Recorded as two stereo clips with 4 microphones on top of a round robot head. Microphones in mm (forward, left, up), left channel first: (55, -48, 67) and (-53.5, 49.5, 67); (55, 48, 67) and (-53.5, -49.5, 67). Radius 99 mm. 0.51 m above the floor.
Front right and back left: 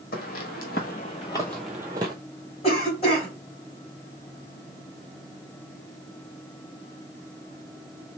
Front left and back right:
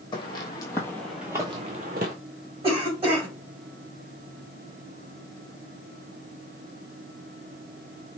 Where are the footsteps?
15° right, 1.0 m; by 2.1 s 165° right, 0.7 m.